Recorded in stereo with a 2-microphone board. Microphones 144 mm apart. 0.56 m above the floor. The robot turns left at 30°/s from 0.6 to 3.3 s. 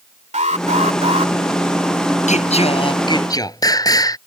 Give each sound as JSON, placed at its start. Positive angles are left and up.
{"t": 0.3, "sound": "an alarm", "side_deg": -60}
{"t": 2.3, "sound": "singing", "azimuth_deg": 55}